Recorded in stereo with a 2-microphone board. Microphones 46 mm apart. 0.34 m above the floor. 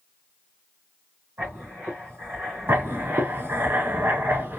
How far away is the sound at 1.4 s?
About 2.5 m.